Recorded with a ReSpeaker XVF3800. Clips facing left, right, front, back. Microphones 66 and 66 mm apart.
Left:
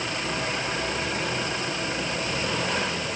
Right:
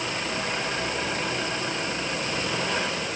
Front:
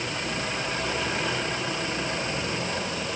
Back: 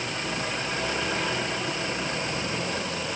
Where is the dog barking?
I don't hear a dog barking.